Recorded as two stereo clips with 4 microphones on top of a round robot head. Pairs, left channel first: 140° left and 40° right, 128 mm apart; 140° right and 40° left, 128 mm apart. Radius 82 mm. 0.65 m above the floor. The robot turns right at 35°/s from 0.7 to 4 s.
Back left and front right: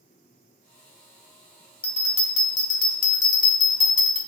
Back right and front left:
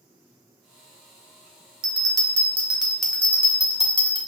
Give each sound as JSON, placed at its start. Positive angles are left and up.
{"t": 1.8, "sound": "a bell", "azimuth_deg": 90, "distance_m": 0.9}